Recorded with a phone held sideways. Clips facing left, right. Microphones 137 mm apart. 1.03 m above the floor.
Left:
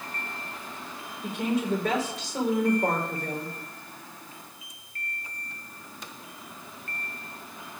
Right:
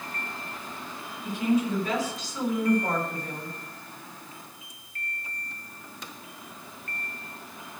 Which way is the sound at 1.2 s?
80° left.